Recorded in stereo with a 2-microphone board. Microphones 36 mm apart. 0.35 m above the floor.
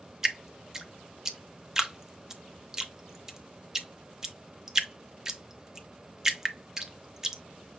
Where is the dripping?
15° right (ahead or behind), 0.6 m.